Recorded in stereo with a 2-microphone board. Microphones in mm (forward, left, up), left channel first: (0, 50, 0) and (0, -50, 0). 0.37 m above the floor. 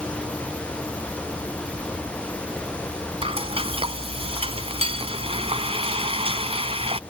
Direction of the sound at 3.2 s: 70° right (ahead or behind).